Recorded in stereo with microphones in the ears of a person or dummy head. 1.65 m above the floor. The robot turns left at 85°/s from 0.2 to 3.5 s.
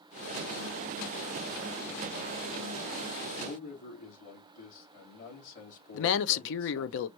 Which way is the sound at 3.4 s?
65° left (ahead or behind).